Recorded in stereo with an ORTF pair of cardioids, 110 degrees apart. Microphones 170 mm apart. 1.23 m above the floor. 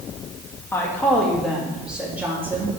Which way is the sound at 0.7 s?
15° left.